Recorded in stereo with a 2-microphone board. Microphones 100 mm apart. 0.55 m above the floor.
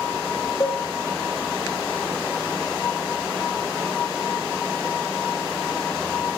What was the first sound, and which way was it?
A cowbell, 35° left (ahead or behind).